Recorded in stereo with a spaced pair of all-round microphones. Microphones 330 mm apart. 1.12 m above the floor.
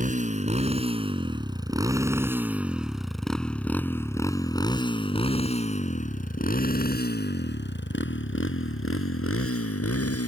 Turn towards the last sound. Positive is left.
turn(degrees=45)  # may be behind; listen again after turning